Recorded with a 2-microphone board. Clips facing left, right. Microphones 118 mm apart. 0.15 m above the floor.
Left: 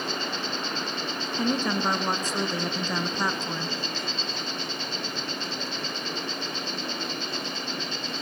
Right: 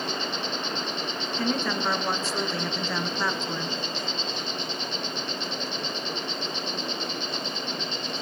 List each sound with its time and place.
0.0 s an insect: 15° right (ahead or behind), 3.5 m
1.4 s a woman speaking: 15° left (ahead or behind), 1.9 m